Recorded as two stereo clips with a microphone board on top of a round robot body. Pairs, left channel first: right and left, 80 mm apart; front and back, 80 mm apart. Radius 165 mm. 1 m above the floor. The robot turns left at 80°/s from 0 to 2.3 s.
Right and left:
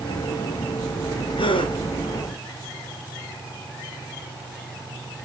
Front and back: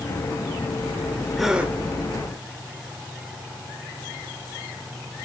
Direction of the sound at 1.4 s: 85° right.